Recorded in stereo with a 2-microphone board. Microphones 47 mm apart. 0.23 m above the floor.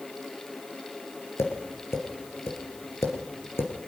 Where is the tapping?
75° left (ahead or behind), 4.5 m.